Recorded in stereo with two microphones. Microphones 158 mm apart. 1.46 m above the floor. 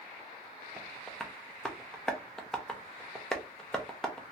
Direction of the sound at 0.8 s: 5° left (ahead or behind).